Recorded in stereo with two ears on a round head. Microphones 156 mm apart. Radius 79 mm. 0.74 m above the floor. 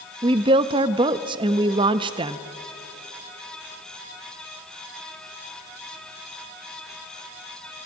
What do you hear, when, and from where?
0.2 s a woman speaking: 30° right (ahead or behind), 0.6 m